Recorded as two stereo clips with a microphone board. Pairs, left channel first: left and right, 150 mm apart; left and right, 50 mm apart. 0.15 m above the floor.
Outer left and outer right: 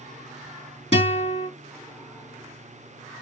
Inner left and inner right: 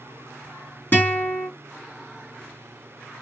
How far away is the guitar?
About 2.5 m.